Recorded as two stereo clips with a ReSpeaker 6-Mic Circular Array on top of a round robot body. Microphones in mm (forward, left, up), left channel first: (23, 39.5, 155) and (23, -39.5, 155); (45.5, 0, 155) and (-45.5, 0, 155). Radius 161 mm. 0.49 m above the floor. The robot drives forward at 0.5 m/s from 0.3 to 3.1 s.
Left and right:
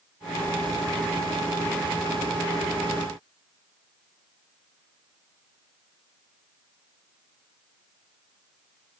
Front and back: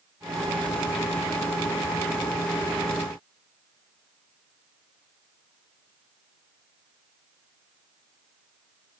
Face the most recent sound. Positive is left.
No sound to turn to.